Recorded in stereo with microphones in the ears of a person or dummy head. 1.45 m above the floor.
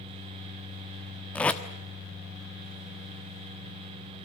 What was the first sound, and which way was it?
Tape being pulled, 5° left (ahead or behind).